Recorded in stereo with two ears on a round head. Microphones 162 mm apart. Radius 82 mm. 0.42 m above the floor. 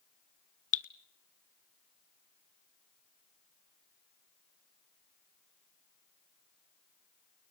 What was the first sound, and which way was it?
Dripping, 45° left (ahead or behind).